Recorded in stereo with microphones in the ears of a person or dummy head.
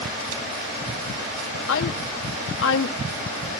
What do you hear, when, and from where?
1.7 s a woman speaking: 75° left (ahead or behind), 1.5 m